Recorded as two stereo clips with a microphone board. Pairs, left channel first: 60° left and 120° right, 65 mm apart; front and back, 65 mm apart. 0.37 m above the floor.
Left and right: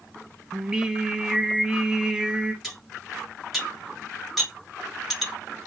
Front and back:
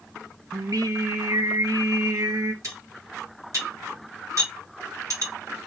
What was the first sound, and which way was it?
Singing, 160° left.